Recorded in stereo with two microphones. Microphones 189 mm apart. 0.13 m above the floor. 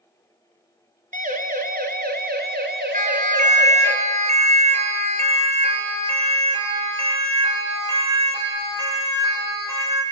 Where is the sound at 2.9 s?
45° right (ahead or behind), 2.5 m; by 10.0 s 25° right (ahead or behind), 6 m.